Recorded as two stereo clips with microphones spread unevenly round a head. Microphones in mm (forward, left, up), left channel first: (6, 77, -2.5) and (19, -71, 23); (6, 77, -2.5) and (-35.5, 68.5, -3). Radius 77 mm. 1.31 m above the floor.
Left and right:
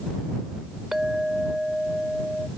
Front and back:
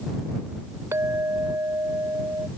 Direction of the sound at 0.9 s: 170° right.